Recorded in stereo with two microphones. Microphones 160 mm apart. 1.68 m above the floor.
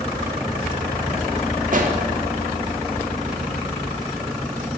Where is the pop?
55° right (ahead or behind), 1.1 m.